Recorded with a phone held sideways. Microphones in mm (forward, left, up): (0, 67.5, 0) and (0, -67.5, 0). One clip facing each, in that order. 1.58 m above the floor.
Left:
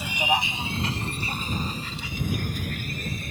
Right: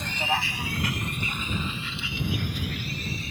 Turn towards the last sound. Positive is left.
turn(degrees=50)  # may be behind; listen again after turning